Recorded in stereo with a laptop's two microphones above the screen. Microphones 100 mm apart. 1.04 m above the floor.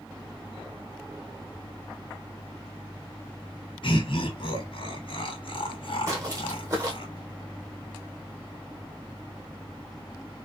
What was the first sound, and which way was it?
Laughter, 60° left (ahead or behind).